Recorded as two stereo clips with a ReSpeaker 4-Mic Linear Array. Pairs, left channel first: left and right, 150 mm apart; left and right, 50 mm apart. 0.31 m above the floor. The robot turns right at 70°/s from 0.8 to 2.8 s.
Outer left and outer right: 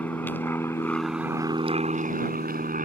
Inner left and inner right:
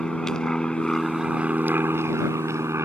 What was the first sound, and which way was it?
An aircraft, 10° left (ahead or behind).